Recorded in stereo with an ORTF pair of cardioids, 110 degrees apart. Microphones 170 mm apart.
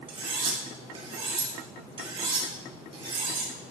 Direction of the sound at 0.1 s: 35° right.